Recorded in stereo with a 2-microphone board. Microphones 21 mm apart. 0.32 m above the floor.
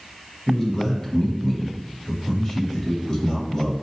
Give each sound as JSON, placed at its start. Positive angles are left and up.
{"t": 0.5, "sound": "a man speaking", "side_deg": 25, "distance_m": 1.8}